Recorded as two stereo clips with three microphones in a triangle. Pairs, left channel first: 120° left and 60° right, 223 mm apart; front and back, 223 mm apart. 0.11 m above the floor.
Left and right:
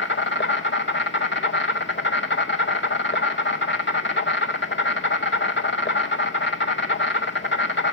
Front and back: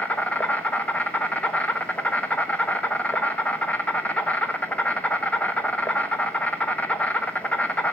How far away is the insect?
About 0.8 m.